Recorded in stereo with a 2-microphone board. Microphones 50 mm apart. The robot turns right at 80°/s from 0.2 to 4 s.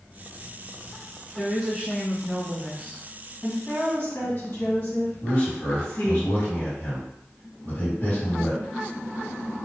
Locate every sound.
1.4 s a woman speaking: 165° right, 1.4 m; by 3.0 s 35° right, 1.4 m
3.4 s a woman speaking: 15° left, 1.9 m; by 6.2 s 65° left, 1.9 m
5.2 s a man speaking: 35° left (ahead or behind), 1.8 m